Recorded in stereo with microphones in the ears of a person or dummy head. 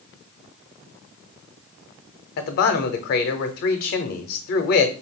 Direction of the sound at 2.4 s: 55° left (ahead or behind).